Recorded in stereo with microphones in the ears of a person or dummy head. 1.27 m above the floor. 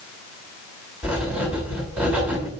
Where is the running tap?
No running tap in this recording.